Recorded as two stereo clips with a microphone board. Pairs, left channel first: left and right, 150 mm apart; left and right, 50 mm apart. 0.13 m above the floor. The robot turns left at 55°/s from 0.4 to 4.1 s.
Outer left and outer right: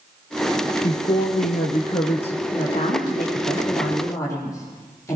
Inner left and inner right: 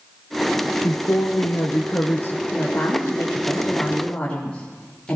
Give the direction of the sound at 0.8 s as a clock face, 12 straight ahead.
8 o'clock.